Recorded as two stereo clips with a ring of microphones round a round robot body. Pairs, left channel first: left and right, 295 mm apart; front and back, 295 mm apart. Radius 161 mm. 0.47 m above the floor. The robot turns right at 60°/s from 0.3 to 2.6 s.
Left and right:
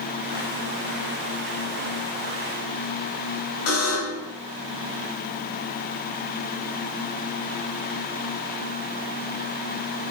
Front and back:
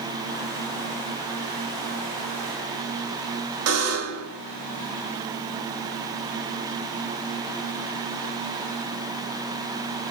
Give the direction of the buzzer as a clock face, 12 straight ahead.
7 o'clock.